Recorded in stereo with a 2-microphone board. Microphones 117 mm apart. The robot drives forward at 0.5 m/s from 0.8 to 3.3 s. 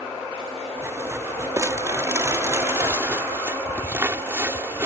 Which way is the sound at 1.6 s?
25° right (ahead or behind).